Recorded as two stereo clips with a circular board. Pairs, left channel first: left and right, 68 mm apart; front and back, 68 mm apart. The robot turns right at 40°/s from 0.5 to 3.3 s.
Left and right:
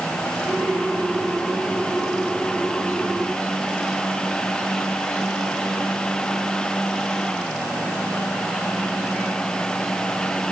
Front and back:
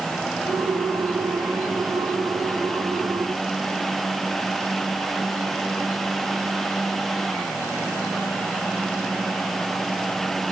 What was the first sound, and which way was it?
Only background noise.